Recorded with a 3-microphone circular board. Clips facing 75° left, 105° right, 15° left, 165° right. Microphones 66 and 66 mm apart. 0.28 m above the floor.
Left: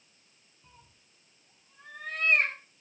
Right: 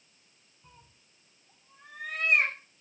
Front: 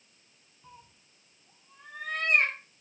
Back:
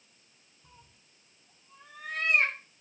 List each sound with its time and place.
0.6 s a cat meowing: 25° right, 5 m